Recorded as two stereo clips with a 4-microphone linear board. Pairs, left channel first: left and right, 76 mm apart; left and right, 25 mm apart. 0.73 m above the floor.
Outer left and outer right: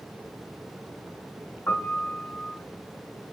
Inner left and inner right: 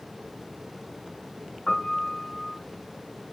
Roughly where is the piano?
Left.